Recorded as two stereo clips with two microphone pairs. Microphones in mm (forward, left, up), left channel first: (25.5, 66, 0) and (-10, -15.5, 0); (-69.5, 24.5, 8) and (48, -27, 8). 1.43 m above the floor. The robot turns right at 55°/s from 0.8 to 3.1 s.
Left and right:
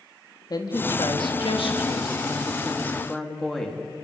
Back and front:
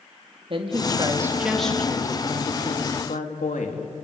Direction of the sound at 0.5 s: 25° left.